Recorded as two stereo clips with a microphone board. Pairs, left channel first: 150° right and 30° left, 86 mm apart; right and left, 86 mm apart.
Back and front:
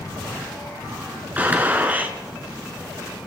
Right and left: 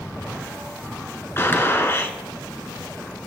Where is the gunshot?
35° right, 1.4 m.